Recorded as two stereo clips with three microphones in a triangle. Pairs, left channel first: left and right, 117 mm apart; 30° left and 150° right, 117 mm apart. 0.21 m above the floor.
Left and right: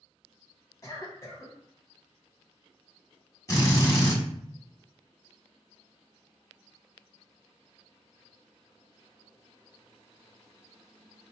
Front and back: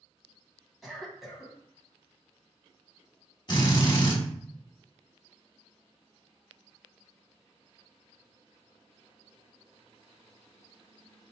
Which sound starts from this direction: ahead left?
A drill, at 3.5 s.